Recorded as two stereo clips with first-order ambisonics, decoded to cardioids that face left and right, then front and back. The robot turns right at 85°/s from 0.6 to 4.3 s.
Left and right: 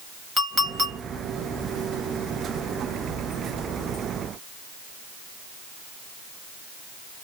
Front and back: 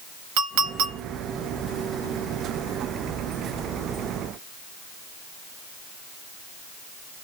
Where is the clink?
170° right, 1.1 m; by 1.0 s 140° right, 1.1 m.